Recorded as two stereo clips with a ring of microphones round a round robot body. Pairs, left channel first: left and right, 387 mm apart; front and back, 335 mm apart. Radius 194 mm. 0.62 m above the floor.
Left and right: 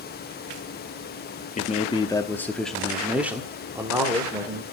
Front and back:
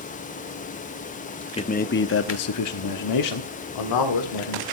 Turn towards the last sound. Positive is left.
turn(degrees=-10)